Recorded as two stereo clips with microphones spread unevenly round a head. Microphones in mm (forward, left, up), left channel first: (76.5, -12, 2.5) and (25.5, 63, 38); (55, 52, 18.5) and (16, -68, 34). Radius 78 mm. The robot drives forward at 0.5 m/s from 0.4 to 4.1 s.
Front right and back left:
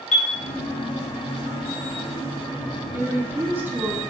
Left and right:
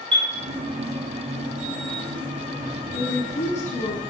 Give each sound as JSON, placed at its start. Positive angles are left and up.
{"t": 0.1, "sound": "a chime", "azimuth_deg": -65, "distance_m": 1.2}
{"t": 2.9, "sound": "a woman speaking", "azimuth_deg": 40, "distance_m": 2.5}